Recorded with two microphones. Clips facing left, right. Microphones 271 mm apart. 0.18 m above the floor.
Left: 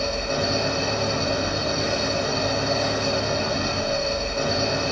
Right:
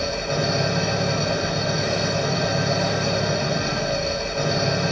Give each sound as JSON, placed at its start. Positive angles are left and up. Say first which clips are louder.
{"t": 0.0, "sound": "an engine running", "louder": "right 1 dB", "side_deg": -15, "distance_m": 5.5}